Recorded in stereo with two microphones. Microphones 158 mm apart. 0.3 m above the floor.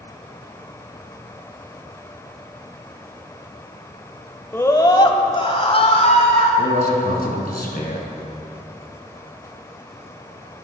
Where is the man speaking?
70° left (ahead or behind), 3 m.